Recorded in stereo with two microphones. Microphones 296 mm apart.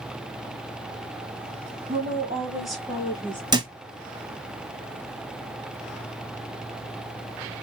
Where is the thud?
15° right (ahead or behind), 0.6 m.